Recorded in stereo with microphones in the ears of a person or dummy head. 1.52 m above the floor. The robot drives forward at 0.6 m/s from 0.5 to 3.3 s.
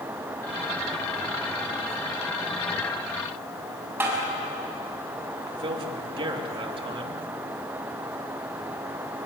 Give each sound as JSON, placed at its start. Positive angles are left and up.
{"t": 4.0, "sound": "tapping", "side_deg": -10, "distance_m": 6.5}
{"t": 5.5, "sound": "a man speaking", "side_deg": -25, "distance_m": 3.0}